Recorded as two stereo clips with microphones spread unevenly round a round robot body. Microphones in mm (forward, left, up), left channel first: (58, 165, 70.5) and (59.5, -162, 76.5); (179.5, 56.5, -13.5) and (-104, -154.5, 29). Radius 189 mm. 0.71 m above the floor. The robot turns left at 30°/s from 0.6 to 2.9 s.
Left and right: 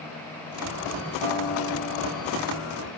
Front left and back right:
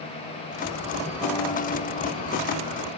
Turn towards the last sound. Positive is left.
turn(degrees=70)